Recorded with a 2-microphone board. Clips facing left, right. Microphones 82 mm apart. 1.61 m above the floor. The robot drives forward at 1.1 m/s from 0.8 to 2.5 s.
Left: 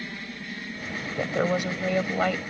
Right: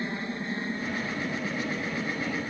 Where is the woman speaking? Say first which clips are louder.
Left 6 dB; 80° left; by 2.4 s 70° left (ahead or behind).